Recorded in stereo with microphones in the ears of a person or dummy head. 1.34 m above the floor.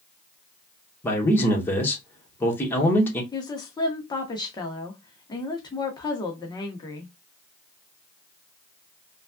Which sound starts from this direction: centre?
A man speaking, at 1.0 s.